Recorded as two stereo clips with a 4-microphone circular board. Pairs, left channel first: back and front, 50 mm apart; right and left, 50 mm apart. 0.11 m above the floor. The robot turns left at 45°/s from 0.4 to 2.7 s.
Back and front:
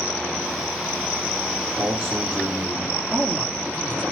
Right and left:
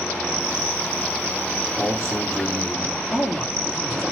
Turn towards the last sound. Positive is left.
turn(degrees=-25)